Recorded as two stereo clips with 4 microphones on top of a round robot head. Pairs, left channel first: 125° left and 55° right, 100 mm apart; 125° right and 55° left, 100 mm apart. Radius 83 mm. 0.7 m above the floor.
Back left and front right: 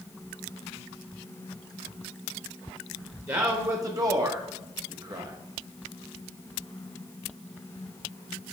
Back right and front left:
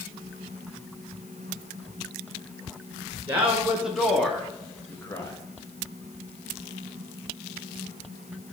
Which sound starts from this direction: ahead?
A man speaking, at 3.3 s.